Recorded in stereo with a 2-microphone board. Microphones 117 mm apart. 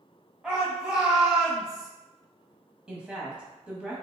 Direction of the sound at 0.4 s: 5° right (ahead or behind).